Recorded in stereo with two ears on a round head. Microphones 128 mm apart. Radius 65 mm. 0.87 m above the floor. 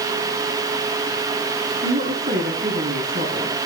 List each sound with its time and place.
1.8 s a woman speaking: 70° right (ahead or behind), 7 m